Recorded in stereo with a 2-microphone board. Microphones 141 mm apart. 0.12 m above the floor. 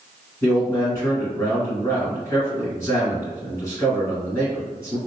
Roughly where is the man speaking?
Centre.